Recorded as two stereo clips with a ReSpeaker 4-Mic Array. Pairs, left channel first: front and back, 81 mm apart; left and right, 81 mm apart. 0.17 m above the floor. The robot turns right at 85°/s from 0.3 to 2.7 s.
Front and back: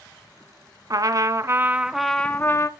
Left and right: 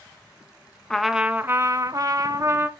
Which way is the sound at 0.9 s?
175° left.